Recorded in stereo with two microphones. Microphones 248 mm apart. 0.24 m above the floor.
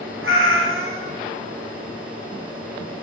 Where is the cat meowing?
60° right (ahead or behind), 0.9 m.